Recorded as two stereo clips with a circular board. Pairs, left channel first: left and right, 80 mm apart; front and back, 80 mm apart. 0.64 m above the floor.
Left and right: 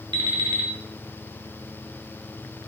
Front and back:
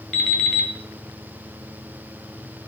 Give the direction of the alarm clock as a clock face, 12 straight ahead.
3 o'clock.